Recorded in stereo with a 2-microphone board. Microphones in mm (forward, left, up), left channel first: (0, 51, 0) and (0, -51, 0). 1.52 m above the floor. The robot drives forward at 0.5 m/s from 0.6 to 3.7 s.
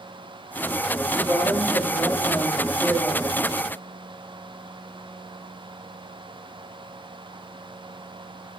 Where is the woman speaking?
55° right (ahead or behind), 0.9 m; by 3.2 s 25° right (ahead or behind), 1.8 m.